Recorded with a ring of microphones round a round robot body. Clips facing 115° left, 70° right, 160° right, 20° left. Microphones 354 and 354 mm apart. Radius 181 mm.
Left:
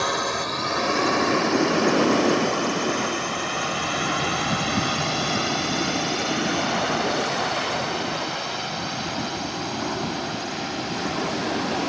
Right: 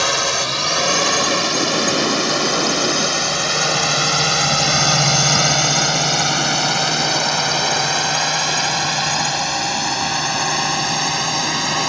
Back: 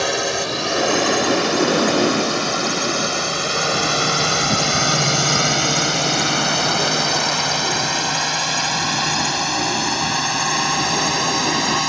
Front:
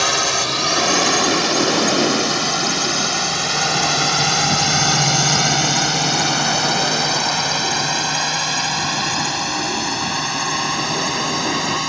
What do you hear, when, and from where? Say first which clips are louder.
0.0 s a drone: right 3 dB, back 2 dB; 40° right; by 11.9 s 70° right